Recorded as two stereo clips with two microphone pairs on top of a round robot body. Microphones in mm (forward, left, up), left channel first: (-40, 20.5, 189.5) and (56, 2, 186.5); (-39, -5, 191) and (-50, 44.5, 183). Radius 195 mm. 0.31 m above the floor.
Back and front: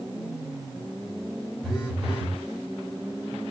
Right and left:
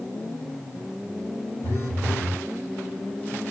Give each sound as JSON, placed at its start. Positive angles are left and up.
{"t": 1.6, "sound": "a phone buzzing", "azimuth_deg": -100, "distance_m": 2.5}